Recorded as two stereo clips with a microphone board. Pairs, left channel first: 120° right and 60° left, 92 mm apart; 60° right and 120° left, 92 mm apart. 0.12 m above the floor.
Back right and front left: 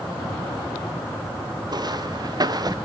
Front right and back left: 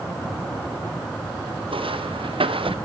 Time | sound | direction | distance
1.7 | footsteps | 105° left | 1.8 m